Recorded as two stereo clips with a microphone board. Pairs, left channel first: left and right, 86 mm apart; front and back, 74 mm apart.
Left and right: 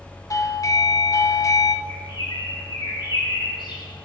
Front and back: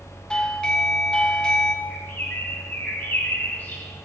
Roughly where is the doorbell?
Left.